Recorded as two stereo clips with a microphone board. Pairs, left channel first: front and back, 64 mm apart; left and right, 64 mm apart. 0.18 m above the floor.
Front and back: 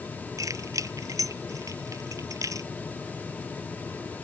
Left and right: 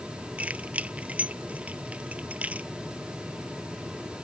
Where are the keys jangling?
155° right.